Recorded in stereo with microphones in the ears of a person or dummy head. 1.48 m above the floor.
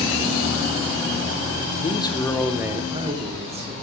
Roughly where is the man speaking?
Left.